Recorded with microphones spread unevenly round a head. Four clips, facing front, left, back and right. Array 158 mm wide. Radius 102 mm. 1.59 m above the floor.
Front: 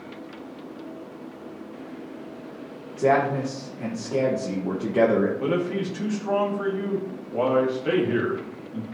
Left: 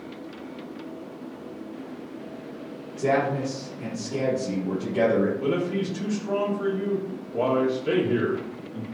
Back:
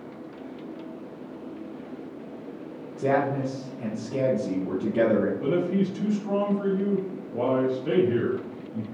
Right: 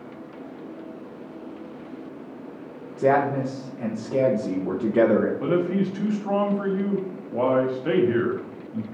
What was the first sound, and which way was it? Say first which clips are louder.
A man speaking: right 3 dB, front 3 dB; 50° right.